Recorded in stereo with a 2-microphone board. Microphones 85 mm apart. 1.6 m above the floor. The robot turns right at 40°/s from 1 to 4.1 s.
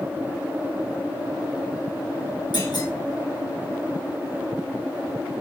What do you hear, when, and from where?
2.5 s a clunk: 65° left (ahead or behind), 1.7 m